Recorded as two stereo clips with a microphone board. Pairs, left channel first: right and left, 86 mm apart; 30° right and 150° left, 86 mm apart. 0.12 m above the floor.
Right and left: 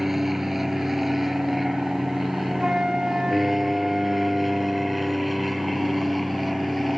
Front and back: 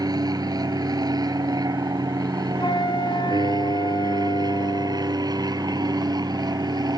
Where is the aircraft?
175° left; by 7.0 s straight behind.